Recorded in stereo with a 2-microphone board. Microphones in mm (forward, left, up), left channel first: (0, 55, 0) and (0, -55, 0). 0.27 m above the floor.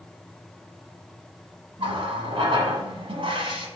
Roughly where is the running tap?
Right.